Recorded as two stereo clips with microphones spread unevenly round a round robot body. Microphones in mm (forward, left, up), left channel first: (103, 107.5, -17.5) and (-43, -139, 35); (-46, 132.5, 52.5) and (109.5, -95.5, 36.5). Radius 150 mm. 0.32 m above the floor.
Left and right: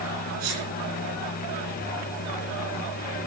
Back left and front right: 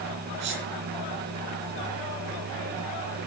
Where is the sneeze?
105° right, 4 m.